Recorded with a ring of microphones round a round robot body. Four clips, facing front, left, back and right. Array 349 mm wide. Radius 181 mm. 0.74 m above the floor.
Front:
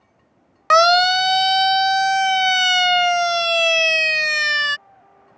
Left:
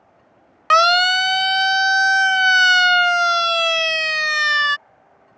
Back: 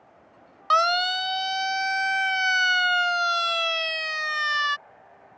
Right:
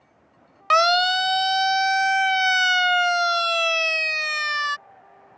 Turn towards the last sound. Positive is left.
turn(degrees=35)